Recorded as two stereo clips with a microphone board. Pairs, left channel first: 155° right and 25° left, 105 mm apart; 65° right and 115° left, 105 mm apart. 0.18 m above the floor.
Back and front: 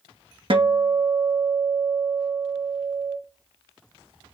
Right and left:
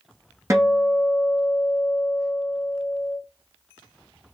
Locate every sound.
0.5 s a guitar: 50° left, 1.1 m